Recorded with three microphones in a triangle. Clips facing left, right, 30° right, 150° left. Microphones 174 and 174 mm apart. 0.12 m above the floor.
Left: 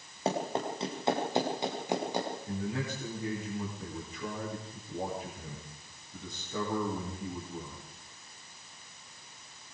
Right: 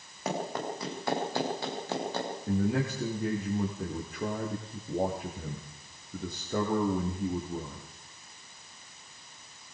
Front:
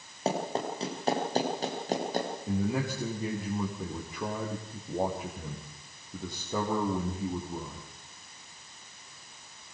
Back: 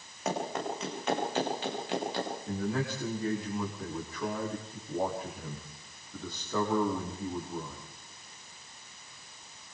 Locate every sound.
0.2 s running footsteps: 30° left, 6.5 m; by 2.3 s 15° left, 6 m
2.5 s a man speaking: 100° right, 5 m